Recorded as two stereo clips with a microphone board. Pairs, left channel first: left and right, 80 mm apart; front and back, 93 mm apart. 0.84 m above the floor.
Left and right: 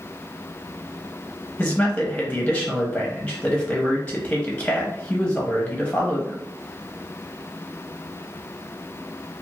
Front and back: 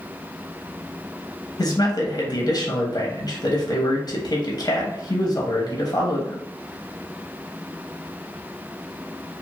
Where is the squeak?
I don't hear a squeak.